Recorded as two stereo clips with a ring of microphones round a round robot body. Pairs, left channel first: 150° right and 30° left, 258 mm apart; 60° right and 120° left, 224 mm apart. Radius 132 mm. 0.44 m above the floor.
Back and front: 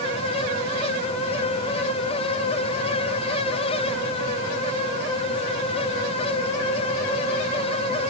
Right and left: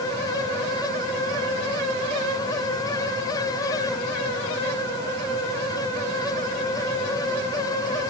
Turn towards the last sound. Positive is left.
No sound to turn to.